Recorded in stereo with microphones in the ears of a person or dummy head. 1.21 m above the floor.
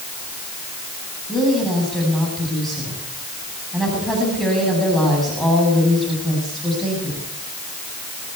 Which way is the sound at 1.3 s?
Centre (ahead or behind).